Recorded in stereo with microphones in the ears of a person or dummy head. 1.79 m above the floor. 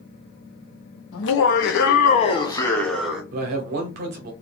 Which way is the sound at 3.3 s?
45° right (ahead or behind).